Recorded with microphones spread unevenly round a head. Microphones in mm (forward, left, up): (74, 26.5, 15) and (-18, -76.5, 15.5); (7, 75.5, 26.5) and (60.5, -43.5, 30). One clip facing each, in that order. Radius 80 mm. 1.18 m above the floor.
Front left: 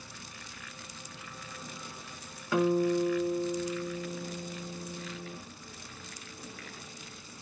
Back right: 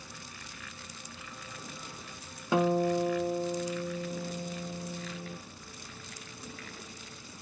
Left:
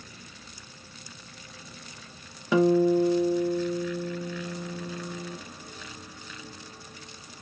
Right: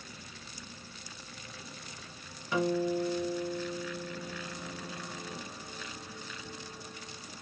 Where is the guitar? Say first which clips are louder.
Even, left 9 dB; 155° left, 0.7 m.